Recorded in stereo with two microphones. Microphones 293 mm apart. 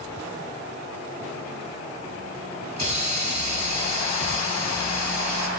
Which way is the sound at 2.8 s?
65° right (ahead or behind).